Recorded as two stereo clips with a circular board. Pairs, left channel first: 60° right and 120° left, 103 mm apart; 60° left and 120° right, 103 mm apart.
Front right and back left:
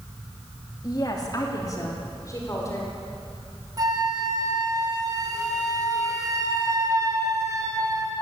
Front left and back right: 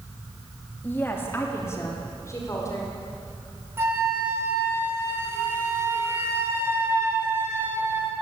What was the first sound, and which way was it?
A woman speaking, 10° right.